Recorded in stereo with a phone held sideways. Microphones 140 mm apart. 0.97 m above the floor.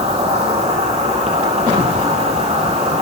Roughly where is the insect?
Right.